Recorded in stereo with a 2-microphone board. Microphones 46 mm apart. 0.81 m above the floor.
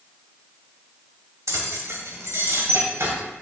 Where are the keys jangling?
85° right, 2.5 m; by 3.1 s 55° right (ahead or behind), 3 m.